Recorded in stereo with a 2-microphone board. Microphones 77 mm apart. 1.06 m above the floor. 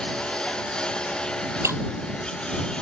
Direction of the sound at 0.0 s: 10° left (ahead or behind).